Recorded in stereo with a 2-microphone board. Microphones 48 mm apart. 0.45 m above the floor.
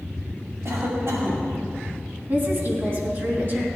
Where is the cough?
65° right (ahead or behind), 2.5 m.